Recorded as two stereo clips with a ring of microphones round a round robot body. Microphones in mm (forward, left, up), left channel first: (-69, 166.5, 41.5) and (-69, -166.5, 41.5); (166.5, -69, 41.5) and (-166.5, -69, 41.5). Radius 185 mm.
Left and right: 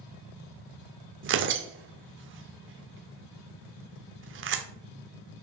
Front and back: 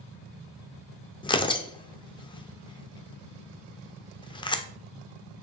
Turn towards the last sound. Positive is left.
turn(degrees=-70)